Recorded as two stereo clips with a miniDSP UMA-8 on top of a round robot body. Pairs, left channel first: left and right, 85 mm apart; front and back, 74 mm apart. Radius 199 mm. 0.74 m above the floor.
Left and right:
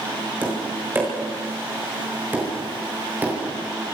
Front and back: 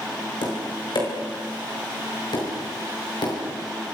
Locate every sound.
0.4 s tapping: 20° right, 6.5 m